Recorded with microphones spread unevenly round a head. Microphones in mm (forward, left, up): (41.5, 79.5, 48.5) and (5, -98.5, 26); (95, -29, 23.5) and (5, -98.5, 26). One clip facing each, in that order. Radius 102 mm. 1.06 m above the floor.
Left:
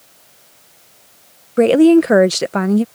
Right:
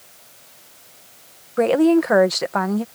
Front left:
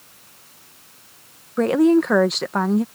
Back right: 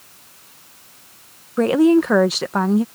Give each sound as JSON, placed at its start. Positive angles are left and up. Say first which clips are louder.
{"t": 1.6, "sound": "a woman speaking", "louder": "left 6 dB, back right 2 dB", "azimuth_deg": 130}